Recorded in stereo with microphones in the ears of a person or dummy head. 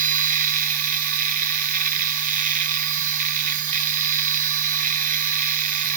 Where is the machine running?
50° right (ahead or behind), 1.0 m.